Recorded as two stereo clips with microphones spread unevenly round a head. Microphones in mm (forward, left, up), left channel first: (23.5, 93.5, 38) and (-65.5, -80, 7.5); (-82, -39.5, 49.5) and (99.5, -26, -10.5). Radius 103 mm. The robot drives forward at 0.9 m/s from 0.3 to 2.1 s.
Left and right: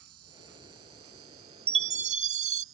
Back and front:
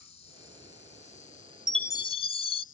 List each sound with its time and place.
0.0 s an insect: 125° right; by 2.7 s 135° right
1.7 s a chime: 145° right; by 2.6 s 170° right